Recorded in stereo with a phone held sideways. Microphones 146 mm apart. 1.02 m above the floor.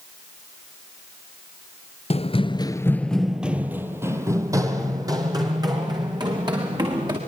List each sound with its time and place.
2.1 s running footsteps: 45° left (ahead or behind), 1.3 m; by 7.2 s 30° right (ahead or behind), 6.5 m